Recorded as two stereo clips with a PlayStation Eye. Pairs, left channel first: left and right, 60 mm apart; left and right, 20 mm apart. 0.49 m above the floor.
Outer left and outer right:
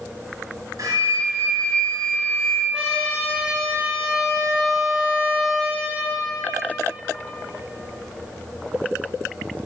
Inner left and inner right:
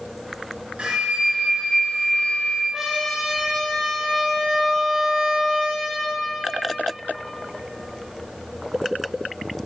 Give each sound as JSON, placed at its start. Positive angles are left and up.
{"t": 0.8, "sound": "a flute", "side_deg": -75, "distance_m": 3.5}
{"t": 2.7, "sound": "a trumpet", "side_deg": -10, "distance_m": 2.5}